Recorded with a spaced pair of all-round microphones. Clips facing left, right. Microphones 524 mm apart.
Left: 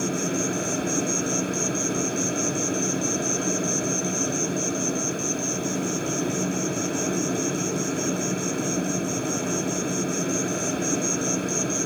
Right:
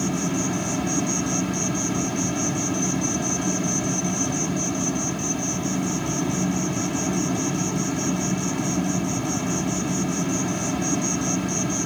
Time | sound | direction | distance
0.0 | an insect | 20° right (ahead or behind) | ?